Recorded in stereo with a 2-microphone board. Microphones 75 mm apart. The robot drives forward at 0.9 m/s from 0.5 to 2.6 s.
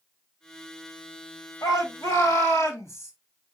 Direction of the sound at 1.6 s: 45° left (ahead or behind).